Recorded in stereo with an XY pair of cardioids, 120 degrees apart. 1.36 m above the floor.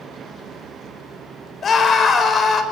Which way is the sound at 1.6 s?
40° left.